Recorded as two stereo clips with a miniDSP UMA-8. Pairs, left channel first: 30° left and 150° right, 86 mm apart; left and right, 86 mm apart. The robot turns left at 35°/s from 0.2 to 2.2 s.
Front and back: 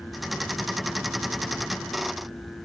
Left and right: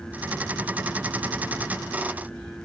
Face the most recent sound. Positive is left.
No sound to turn to.